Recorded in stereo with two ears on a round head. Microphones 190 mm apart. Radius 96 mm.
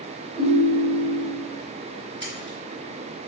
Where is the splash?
25° right (ahead or behind), 3.5 m.